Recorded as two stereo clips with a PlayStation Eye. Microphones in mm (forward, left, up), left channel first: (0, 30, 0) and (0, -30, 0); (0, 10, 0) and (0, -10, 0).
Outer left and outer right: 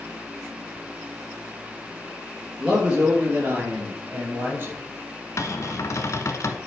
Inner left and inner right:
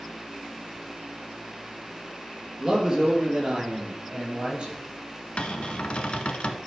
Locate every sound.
2.6 s a man speaking: 20° right (ahead or behind), 3 m; by 4.7 s 35° right (ahead or behind), 4.5 m
5.4 s a cupboard door: 55° left (ahead or behind), 0.9 m